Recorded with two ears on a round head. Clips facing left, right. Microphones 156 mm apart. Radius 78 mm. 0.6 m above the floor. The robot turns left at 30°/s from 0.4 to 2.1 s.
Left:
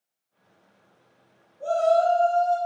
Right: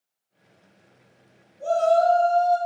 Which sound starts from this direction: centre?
A shout, at 1.6 s.